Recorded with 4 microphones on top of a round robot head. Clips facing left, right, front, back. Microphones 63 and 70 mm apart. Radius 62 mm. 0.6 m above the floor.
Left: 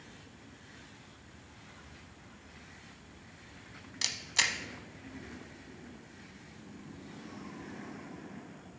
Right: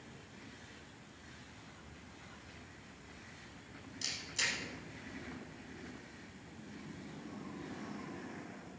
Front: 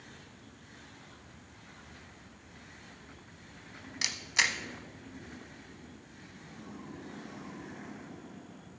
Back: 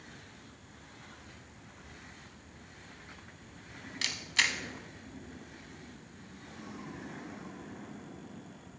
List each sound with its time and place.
4.0 s a camera shutter: 75° left, 0.8 m